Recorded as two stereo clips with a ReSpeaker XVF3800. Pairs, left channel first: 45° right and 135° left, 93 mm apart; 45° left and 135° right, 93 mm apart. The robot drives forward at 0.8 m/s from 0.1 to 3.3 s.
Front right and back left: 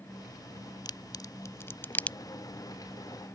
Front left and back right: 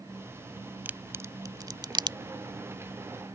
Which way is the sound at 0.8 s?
70° right.